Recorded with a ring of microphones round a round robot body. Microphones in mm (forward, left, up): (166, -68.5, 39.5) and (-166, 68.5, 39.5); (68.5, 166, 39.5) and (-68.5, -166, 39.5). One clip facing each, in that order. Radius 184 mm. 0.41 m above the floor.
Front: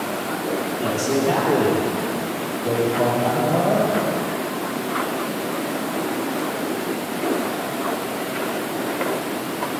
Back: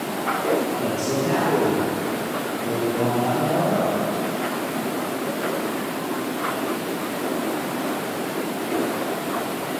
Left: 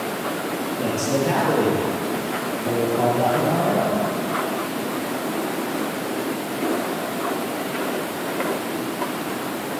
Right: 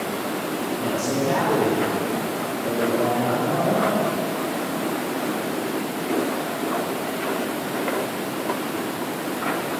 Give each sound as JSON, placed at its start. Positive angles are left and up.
{"t": 0.8, "sound": "a man speaking", "azimuth_deg": 65, "distance_m": 10.0}